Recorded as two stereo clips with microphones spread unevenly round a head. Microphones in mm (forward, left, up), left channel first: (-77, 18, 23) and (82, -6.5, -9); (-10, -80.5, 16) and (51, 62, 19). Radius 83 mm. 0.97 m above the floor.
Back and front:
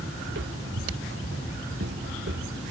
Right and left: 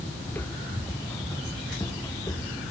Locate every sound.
0.2 s footsteps: 35° right; by 2.6 s 45° right